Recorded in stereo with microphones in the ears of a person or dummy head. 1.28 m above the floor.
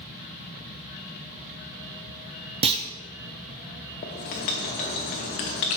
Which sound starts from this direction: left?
Writing, at 4.0 s.